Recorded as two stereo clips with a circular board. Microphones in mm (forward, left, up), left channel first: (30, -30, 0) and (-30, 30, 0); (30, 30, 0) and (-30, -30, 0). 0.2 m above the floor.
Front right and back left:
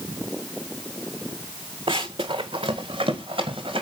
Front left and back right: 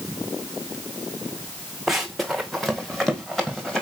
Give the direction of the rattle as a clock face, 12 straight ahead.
I don't hear a rattle.